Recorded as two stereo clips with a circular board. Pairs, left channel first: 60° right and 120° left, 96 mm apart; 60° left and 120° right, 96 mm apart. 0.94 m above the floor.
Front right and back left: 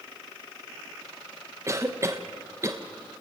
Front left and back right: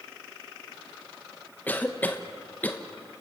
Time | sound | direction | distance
1.7 | a cough | 115° left | 1.0 m